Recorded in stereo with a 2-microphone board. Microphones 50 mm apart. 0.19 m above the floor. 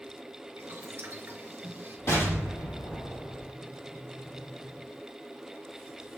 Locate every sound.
0.6 s boiling: 50° right (ahead or behind), 2 m
2.1 s an explosion: 70° left (ahead or behind), 5 m